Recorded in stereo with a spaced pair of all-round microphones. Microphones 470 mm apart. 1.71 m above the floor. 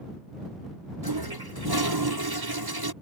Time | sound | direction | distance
1.0 | a toilet flushing | 50° right (ahead or behind) | ?